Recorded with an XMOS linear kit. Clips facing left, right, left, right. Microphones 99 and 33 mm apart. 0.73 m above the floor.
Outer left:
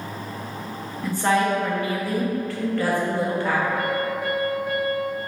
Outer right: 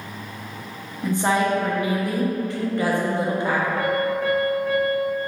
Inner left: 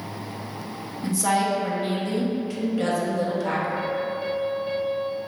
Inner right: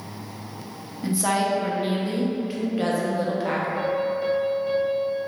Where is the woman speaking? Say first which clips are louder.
Even, even; 20° right (ahead or behind), 0.6 m.